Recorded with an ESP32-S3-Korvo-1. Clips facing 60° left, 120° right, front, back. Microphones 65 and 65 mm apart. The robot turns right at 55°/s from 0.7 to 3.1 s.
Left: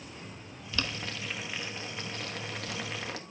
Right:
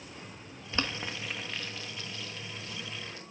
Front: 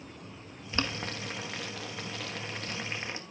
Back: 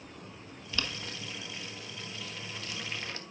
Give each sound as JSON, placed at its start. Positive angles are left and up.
{"t": 0.7, "sound": "boiling", "azimuth_deg": -60, "distance_m": 1.2}